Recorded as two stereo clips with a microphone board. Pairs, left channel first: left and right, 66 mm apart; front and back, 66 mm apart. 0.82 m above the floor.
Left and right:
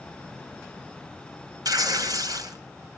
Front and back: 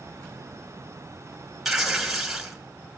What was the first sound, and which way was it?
Tearing paper, 90° right.